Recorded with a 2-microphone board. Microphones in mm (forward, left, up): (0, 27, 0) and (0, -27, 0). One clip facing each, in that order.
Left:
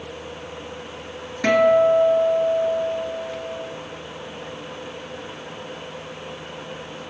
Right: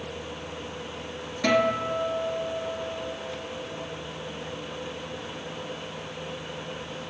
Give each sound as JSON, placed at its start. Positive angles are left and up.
{"t": 1.4, "sound": "a guitar", "side_deg": 35, "distance_m": 0.9}